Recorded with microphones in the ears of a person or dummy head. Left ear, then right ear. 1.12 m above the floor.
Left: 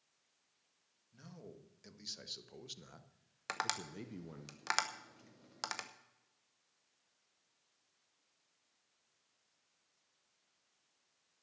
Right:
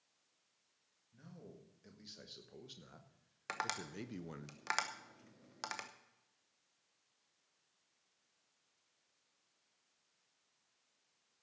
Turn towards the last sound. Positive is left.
turn(degrees=5)  # may be behind; listen again after turning